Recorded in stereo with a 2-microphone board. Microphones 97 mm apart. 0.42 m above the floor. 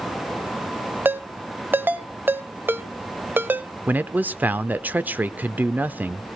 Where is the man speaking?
20° right (ahead or behind), 0.7 m.